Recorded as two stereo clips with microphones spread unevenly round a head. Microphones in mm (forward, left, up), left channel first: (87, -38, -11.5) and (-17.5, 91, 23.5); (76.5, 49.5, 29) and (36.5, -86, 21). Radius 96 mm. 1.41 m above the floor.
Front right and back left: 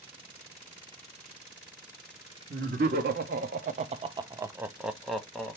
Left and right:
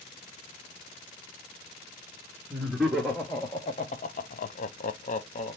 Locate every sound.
2.5 s laughter: 170° left, 0.9 m; by 5.6 s 40° left, 1.1 m